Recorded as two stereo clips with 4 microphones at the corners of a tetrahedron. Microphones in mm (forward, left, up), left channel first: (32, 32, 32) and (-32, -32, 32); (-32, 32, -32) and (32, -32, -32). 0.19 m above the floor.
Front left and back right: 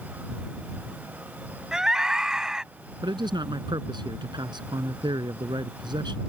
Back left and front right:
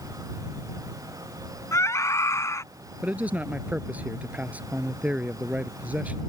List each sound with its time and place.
1.7 s a scream: 145° left
3.0 s a man speaking: 115° right